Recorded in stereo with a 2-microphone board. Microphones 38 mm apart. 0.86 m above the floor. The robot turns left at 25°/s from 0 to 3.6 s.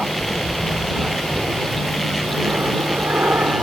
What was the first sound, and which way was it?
An aircraft, 20° right.